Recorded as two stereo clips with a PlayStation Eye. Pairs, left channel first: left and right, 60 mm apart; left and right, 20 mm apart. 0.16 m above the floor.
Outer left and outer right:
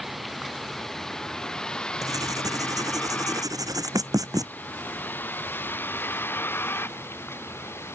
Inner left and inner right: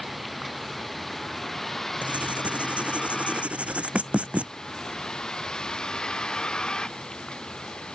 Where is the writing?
80° right.